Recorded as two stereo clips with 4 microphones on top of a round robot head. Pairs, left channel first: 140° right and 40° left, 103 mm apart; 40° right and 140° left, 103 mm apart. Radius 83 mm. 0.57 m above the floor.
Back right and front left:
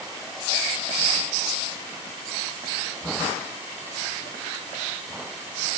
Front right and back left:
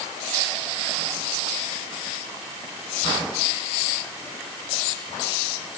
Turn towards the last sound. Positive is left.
No sound to turn to.